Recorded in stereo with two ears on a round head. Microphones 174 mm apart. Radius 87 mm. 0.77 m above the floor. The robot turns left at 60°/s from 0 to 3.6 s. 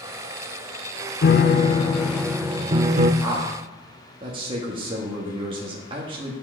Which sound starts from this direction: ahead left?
A piano, at 1.2 s.